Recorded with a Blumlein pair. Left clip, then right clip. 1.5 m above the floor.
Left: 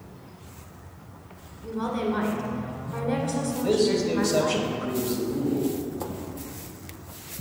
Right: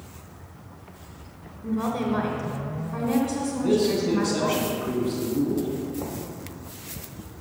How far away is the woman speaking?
About 1.1 m.